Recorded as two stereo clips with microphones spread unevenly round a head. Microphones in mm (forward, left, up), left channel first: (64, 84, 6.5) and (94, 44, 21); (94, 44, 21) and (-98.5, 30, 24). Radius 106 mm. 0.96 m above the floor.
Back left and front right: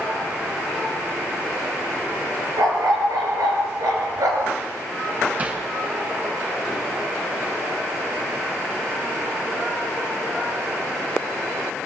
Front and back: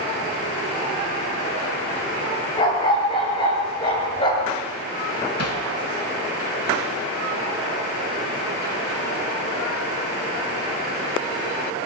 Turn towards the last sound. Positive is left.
turn(degrees=5)